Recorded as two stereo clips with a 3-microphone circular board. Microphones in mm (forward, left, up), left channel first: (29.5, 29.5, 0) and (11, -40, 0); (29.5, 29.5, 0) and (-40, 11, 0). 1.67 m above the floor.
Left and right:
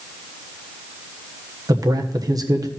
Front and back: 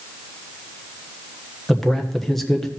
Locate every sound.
1.7 s a man speaking: 70° right, 1.3 m